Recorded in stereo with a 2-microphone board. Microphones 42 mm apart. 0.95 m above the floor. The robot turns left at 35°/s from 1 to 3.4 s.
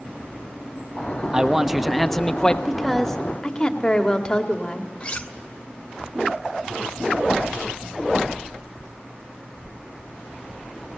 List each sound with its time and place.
1.3 s a man speaking: 160° right, 1.2 m; by 2.5 s 160° left, 1.2 m
2.6 s a woman speaking: 5° right (ahead or behind), 2.5 m; by 4.9 s 20° left (ahead or behind), 2.5 m
5.0 s cutlery clinking: 30° left (ahead or behind), 1.4 m